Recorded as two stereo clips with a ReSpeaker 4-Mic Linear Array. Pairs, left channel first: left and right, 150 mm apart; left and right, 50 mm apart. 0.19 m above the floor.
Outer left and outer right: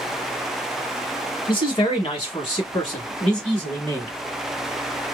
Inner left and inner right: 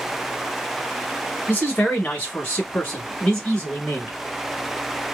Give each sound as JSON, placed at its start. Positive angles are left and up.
{"t": 1.5, "sound": "a man speaking", "side_deg": 35, "distance_m": 1.3}